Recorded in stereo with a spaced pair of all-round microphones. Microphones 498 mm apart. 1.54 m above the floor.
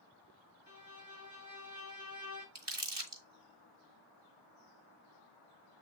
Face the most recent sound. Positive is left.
turn(degrees=-55)  # may be behind; listen again after turning